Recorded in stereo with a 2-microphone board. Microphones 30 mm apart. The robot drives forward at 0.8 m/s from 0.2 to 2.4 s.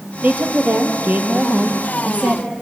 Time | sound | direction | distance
0.2 | a woman speaking | 65° right (ahead or behind) | 3 m